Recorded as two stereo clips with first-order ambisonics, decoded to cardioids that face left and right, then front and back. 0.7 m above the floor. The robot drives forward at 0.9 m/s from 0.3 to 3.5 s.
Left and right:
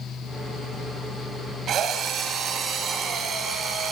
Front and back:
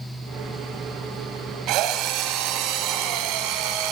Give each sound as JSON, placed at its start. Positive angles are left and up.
{"t": 1.7, "sound": "a drill", "azimuth_deg": -145, "distance_m": 3.5}